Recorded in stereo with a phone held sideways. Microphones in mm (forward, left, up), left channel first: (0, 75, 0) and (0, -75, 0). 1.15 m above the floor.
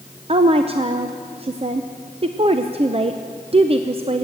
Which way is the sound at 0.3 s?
40° right (ahead or behind).